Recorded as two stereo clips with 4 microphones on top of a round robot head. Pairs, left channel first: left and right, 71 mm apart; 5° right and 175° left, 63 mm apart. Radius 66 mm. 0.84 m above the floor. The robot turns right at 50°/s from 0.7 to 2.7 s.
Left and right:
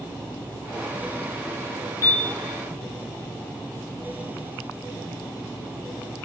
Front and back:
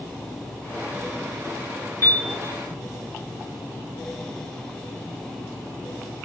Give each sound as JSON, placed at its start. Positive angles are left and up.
{"t": 2.0, "sound": "a piano", "azimuth_deg": 45, "distance_m": 5.5}